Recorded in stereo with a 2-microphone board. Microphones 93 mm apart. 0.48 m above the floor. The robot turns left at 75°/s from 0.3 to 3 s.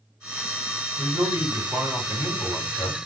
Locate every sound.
1.0 s a man speaking: 95° right, 1.8 m; by 3.0 s 115° left, 1.8 m